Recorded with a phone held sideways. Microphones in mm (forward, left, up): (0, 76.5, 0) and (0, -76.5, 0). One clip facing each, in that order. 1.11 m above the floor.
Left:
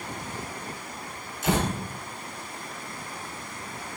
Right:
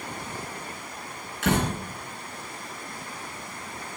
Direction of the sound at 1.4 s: 70° right (ahead or behind).